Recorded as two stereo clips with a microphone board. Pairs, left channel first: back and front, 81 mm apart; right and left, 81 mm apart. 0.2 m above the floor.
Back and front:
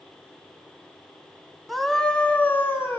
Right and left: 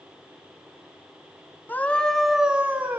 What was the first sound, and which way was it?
A scream, 90° right.